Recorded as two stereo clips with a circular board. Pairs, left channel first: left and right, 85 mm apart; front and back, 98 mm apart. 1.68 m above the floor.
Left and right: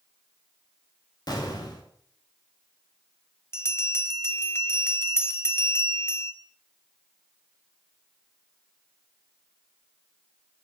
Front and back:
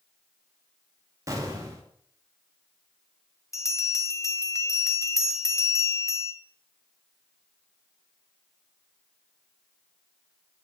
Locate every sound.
1.3 s an explosion: 125° left, 2.5 m
3.5 s a bell: 40° left, 1.4 m